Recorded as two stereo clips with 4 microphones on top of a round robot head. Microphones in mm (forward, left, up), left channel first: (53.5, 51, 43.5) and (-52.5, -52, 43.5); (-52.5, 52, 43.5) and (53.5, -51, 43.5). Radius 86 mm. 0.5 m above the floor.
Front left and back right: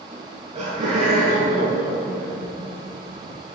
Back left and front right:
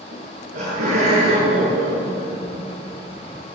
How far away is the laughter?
About 8.5 m.